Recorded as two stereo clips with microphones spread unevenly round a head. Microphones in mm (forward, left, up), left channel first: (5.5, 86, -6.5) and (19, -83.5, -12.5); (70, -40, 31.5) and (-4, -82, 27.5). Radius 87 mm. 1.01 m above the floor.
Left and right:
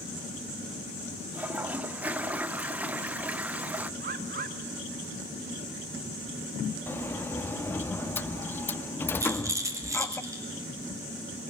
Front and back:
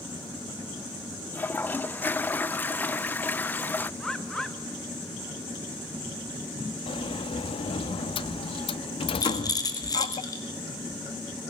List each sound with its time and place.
1.3 s a toilet flushing: 20° right, 0.6 m
4.0 s a bird: 55° right, 2 m
6.9 s a sliding door: 15° left, 0.8 m
9.2 s a rattle: 10° right, 5.5 m